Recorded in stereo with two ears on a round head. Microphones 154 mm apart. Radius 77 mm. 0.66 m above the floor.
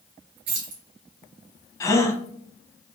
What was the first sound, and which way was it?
Keys jangling, 80° right.